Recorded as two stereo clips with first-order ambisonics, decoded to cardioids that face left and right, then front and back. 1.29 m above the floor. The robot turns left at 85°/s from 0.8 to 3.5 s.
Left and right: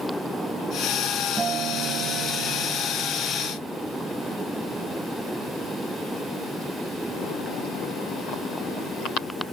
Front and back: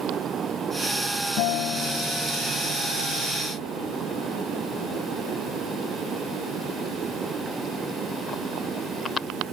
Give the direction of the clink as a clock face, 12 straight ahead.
No clink in this recording.